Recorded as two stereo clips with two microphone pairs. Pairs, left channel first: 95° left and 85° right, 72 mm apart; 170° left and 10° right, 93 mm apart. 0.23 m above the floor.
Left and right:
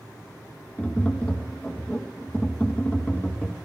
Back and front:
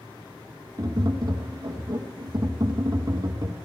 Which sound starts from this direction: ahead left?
Tapping, at 0.8 s.